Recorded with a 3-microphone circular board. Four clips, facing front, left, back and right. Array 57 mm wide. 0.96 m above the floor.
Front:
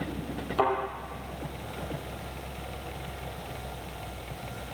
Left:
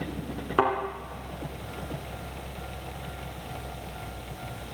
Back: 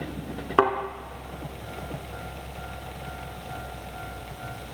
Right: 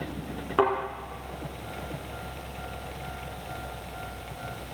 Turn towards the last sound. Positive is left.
turn(degrees=175)